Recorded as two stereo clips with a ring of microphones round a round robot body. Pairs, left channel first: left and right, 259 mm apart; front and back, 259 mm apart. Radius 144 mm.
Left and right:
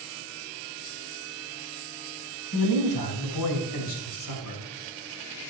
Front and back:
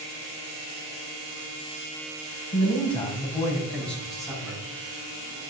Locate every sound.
2.5 s a man speaking: 65° left, 3.5 m; by 4.6 s 95° left, 5 m